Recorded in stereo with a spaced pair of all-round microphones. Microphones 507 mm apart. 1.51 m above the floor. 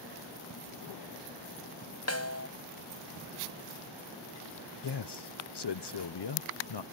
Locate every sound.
2.1 s a snare drum: 30° left (ahead or behind)
4.8 s a man speaking: 55° left (ahead or behind)